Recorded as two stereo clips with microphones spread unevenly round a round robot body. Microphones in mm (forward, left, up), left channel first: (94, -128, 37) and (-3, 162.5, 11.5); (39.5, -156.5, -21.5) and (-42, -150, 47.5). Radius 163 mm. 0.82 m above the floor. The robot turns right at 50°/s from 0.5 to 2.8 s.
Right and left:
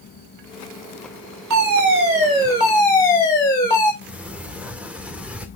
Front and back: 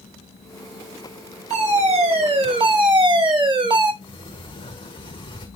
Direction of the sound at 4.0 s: 20° left.